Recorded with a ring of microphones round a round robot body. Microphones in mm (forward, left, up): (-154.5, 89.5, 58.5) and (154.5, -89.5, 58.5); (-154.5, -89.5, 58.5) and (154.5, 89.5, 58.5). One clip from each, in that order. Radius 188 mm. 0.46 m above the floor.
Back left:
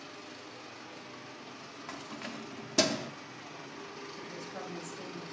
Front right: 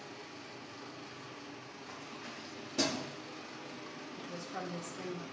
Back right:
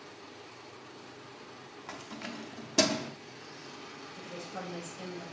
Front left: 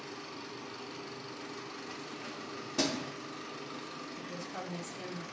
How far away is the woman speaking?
About 1.4 m.